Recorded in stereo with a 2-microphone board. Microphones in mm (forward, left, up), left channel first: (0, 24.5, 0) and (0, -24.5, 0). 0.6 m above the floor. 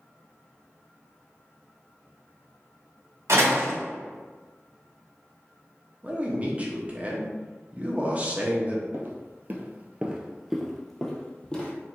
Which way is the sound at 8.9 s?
50° right (ahead or behind).